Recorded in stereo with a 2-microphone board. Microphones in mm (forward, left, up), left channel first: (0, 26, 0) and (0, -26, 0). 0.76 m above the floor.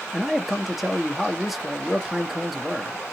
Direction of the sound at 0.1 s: 5° right (ahead or behind).